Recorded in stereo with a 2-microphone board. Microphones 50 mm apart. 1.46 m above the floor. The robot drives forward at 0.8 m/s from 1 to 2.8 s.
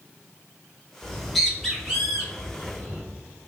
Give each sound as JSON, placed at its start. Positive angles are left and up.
{"t": 1.0, "sound": "a bird", "side_deg": 5, "distance_m": 0.8}